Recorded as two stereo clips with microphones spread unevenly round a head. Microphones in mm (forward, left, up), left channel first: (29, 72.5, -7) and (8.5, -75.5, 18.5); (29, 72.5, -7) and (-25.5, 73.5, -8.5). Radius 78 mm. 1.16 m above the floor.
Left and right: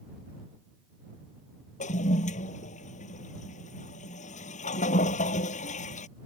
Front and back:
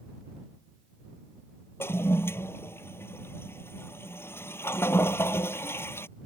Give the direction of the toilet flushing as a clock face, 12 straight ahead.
11 o'clock.